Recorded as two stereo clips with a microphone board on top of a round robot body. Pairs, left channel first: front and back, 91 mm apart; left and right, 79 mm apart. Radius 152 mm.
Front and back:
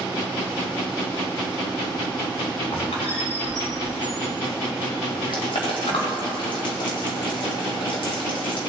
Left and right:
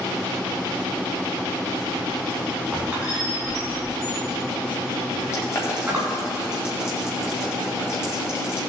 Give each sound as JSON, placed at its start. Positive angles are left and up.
{"t": 2.7, "sound": "a squeak", "azimuth_deg": -15, "distance_m": 2.5}
{"t": 5.3, "sound": "boiling", "azimuth_deg": 30, "distance_m": 1.6}